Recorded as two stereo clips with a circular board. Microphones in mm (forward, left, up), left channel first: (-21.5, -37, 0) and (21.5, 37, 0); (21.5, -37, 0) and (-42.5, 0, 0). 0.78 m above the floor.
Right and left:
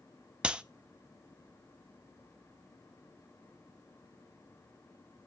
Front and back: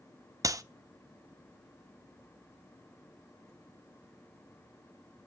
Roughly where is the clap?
Behind left.